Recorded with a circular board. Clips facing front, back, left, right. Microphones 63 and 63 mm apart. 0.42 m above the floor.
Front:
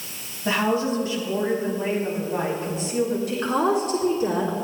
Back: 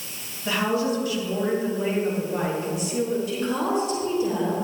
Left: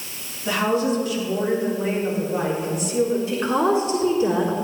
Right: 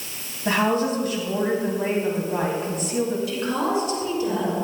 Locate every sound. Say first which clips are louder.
0.5 s a woman speaking: front 1 dB, even; 55° right, 3.5 m
3.3 s a woman speaking: front 3 dB, left 4 dB; 30° left, 4 m